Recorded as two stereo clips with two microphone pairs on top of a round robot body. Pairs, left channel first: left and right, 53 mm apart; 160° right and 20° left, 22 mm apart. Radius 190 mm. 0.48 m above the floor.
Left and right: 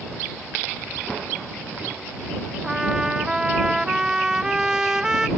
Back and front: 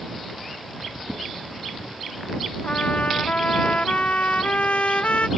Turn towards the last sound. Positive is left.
turn(degrees=-170)